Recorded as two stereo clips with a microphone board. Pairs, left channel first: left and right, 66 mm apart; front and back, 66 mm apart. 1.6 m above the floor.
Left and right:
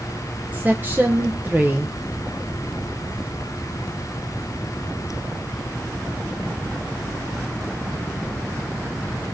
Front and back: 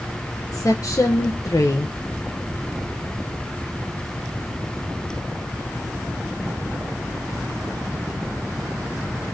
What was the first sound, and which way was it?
A woman speaking, 30° right.